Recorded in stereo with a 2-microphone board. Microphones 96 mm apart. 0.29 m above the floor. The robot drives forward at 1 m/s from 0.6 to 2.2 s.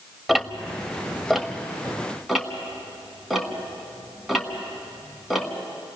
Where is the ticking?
Centre (ahead or behind), 0.6 m.